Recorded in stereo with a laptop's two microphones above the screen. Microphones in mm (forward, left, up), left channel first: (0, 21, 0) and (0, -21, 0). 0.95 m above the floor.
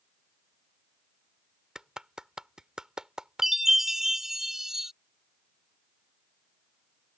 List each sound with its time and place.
1.8 s a clap: 15° right (ahead or behind)
3.4 s a chime: 5° right (ahead or behind)